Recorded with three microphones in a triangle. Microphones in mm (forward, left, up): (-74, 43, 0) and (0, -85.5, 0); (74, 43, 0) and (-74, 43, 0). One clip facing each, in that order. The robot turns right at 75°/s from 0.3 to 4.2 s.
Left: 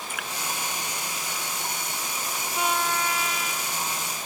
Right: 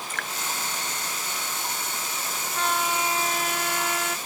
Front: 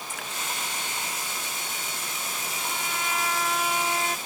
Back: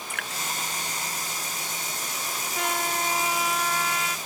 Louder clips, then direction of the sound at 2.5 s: Even, back 7 dB; 165° right.